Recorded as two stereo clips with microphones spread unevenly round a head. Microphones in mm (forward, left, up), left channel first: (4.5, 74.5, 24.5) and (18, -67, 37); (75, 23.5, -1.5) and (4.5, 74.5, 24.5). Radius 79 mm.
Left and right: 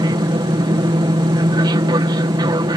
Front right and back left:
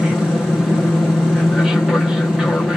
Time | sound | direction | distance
0.0 | an aircraft | 95° right | ?